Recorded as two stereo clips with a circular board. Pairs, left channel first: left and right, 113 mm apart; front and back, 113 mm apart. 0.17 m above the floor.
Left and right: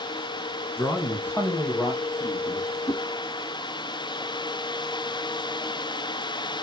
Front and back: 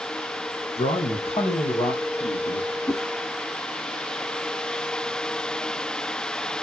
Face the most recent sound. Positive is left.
turn(degrees=65)